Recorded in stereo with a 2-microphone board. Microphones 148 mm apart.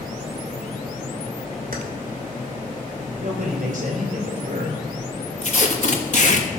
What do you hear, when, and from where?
1.7 s keys jangling: 75° right (ahead or behind), 2 m
3.2 s a man speaking: 65° right (ahead or behind), 3.5 m
5.4 s tape being pulled: 55° left (ahead or behind), 1.5 m